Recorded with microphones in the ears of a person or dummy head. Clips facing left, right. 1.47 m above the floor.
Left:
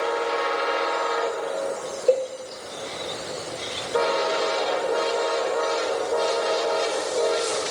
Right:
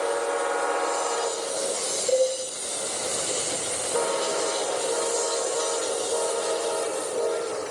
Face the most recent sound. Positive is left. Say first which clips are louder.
# left 1 dB
turn(degrees=80)